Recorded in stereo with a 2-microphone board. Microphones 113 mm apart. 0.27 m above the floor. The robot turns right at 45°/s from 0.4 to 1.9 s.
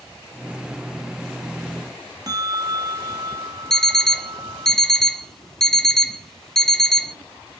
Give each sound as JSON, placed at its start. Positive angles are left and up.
{"t": 2.3, "sound": "a bell", "side_deg": -35, "distance_m": 2.0}
{"t": 3.7, "sound": "an alarm clock", "side_deg": 5, "distance_m": 0.7}